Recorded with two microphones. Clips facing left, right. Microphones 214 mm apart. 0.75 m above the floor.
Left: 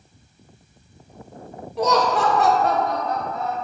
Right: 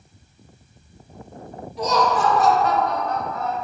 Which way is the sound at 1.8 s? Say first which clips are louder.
Left 1 dB; 60° left (ahead or behind).